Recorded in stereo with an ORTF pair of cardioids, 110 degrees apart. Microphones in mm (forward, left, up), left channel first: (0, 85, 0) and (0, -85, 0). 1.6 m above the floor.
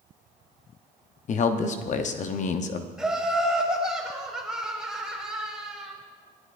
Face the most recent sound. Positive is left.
turn(degrees=-5)